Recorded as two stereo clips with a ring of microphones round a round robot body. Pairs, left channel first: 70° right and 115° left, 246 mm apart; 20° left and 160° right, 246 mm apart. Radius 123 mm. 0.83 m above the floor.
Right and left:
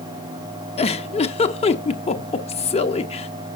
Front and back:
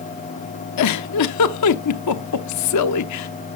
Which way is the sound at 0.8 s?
Straight ahead.